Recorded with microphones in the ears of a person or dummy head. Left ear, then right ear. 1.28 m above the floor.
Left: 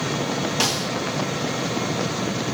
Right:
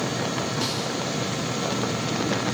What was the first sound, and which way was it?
A snare drum, 70° left (ahead or behind).